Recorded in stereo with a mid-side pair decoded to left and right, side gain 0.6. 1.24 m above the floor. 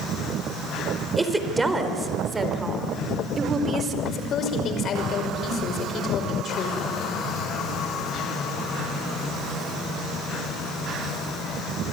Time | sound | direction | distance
1.2 | a woman speaking | 10° right | 4.5 m
4.0 | a woman speaking | 45° left | 5.5 m